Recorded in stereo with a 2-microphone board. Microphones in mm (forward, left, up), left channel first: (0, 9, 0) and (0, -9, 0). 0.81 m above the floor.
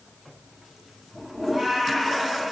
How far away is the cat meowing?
About 5 m.